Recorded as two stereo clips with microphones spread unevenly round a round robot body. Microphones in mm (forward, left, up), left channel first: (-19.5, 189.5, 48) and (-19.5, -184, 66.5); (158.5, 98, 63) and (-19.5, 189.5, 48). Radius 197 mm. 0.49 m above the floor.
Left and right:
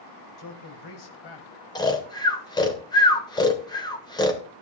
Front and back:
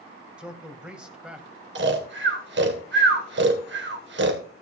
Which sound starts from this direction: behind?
Snoring, at 1.8 s.